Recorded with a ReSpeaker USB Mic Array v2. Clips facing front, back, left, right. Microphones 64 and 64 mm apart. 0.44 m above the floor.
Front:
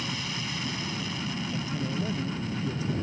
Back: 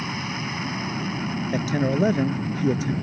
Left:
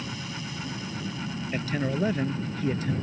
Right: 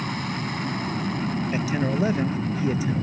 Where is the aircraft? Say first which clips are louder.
Back 5 dB, right 7 dB; 120° right.